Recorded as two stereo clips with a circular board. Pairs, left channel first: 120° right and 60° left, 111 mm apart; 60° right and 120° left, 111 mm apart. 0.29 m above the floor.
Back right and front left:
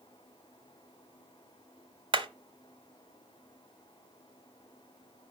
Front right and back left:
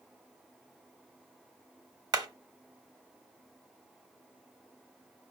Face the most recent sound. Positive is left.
turn(degrees=80)